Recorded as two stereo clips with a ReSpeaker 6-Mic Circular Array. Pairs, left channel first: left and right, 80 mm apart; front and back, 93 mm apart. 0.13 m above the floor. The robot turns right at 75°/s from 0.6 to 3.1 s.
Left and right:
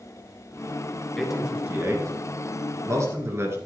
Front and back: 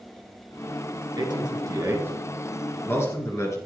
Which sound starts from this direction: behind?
A man speaking, at 1.2 s.